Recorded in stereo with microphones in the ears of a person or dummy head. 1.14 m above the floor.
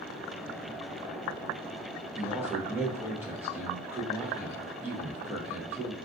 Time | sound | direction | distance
2.1 | a man speaking | 5° right (ahead or behind) | 0.7 m